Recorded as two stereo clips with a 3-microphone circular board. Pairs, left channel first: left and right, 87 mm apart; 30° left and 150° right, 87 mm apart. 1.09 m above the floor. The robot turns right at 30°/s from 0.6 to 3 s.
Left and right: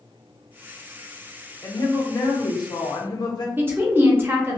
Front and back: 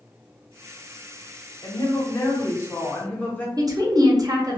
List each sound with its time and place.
1.6 s a woman speaking: 60° left, 0.7 m; by 3.5 s 100° left, 0.7 m
3.6 s a woman speaking: 145° right, 0.6 m